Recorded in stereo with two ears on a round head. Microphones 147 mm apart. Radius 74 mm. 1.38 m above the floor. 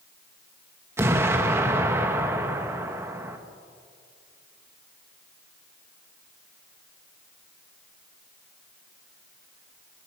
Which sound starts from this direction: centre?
An explosion, at 1.0 s.